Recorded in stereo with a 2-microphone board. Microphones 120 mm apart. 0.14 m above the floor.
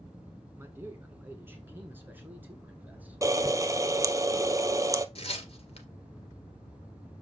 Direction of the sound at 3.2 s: 25° right (ahead or behind).